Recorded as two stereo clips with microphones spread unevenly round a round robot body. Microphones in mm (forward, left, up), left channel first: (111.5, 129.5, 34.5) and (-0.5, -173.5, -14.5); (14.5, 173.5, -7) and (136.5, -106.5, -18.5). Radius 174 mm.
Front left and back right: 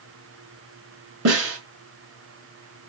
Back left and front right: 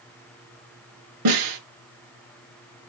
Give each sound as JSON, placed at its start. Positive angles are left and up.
{"t": 1.2, "sound": "a snare drum", "azimuth_deg": -65, "distance_m": 5.0}